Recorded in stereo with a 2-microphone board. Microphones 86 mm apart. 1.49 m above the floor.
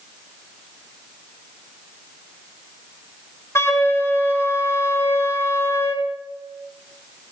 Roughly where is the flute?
Left.